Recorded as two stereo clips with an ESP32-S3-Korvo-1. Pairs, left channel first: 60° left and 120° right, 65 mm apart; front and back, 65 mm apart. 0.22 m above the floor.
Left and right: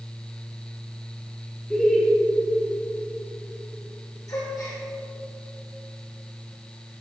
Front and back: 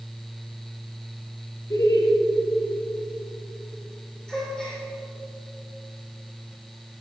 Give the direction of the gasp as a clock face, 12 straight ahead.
9 o'clock.